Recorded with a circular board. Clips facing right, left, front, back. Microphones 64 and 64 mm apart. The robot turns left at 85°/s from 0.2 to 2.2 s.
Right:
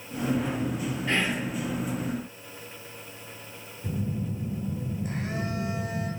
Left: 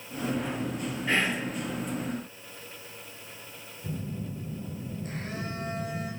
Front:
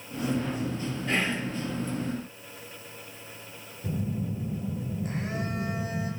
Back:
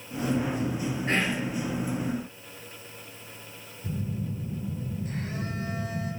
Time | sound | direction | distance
1.1 | whispering | 170° left | 1.4 m
3.8 | a phone buzzing | 10° right | 1.4 m